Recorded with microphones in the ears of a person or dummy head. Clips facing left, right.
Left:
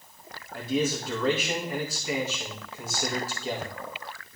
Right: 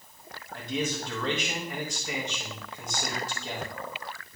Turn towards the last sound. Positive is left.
turn(degrees=5)  # may be behind; listen again after turning